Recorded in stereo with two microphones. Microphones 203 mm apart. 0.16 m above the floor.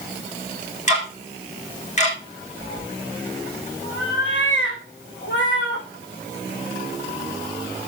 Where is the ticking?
35° left (ahead or behind), 5 m.